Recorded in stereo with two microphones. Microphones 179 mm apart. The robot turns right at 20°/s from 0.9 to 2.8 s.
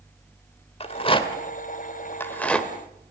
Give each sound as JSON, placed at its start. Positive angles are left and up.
{"t": 0.8, "sound": "a rattle", "side_deg": 35, "distance_m": 1.6}